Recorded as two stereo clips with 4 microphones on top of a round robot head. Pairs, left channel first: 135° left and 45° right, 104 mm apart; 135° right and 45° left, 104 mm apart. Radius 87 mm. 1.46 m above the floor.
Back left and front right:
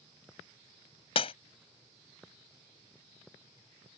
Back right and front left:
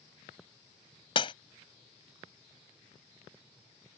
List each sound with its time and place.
1.1 s breaking glass: 175° left